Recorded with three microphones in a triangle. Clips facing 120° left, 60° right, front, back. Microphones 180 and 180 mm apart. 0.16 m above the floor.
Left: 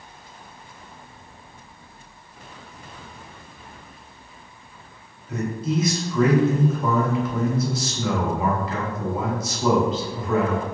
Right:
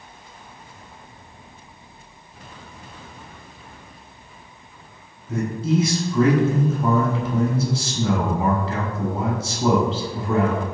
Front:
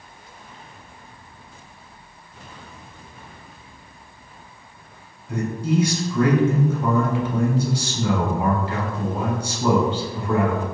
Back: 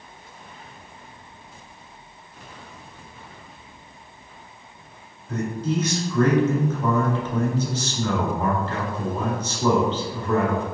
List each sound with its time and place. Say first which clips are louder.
5.3 s a man speaking: right 3 dB, front 2 dB; 65° right, 1.1 m